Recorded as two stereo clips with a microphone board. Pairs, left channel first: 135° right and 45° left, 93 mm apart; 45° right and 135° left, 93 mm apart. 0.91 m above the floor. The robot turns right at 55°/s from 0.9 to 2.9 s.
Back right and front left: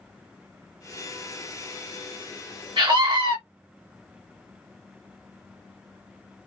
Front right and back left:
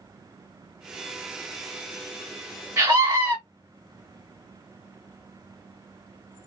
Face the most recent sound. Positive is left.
turn(degrees=80)